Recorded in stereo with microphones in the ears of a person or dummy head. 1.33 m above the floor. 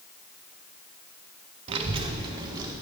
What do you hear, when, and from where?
1.7 s a child speaking: 30° right (ahead or behind), 0.5 m; by 2.7 s 20° right (ahead or behind), 1.0 m